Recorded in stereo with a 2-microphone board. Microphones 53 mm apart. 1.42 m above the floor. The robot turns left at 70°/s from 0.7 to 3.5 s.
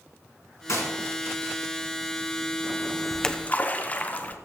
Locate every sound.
0.7 s a gunshot: 70° left (ahead or behind), 4 m; by 0.9 s 55° left (ahead or behind), 4 m
3.1 s a splash: centre (ahead or behind), 0.9 m; by 4.4 s 30° left (ahead or behind), 0.9 m